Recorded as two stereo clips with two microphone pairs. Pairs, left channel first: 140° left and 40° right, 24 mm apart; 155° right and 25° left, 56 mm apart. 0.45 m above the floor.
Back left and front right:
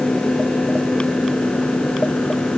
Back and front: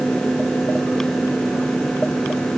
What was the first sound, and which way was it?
Only background noise.